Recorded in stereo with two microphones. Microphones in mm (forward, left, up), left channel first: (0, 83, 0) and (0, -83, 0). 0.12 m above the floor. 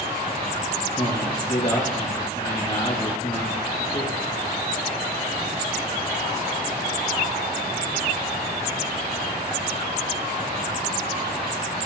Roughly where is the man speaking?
Left.